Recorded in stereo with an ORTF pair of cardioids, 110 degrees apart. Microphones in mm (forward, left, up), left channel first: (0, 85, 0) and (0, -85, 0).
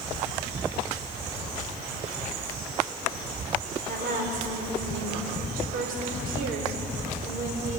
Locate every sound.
3.9 s a woman speaking: 65° right, 4.5 m